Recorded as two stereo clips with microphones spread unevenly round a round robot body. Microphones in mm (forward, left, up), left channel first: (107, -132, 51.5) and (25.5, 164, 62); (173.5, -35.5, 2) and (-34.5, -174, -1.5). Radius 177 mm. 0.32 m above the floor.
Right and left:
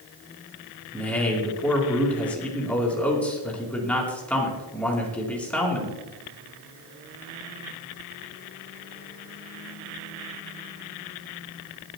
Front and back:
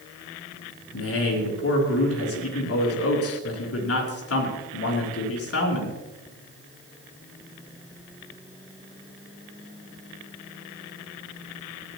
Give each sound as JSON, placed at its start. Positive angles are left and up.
{"t": 0.9, "sound": "a man speaking", "azimuth_deg": 10, "distance_m": 4.5}